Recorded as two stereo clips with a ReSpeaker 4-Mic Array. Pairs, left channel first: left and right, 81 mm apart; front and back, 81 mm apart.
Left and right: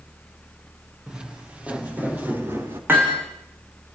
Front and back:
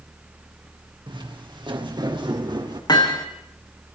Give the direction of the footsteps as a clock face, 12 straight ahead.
6 o'clock.